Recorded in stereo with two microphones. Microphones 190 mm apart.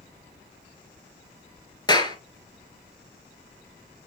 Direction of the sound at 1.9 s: 20° left (ahead or behind).